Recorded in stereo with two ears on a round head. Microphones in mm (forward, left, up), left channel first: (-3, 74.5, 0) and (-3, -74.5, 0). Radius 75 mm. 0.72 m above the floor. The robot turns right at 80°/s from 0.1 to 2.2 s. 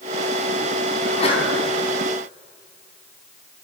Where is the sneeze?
125° left, 5.5 m; by 1.5 s 160° left, 5.5 m.